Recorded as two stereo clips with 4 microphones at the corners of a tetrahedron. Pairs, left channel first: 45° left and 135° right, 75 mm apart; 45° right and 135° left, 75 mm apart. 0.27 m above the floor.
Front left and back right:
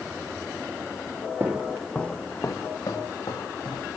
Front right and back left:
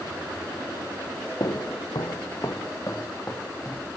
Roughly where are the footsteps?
Right.